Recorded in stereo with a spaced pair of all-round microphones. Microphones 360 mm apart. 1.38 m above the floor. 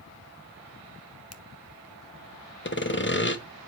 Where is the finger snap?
40° left (ahead or behind), 0.9 m.